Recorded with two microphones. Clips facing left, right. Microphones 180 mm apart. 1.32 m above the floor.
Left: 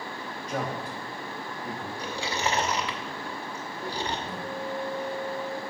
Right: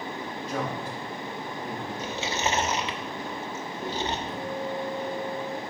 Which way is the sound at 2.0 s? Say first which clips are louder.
Even; 20° right (ahead or behind).